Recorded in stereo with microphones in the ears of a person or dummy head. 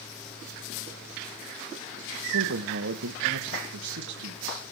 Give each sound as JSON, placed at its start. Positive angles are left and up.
{"t": 2.3, "sound": "a man speaking", "side_deg": -80, "distance_m": 2.5}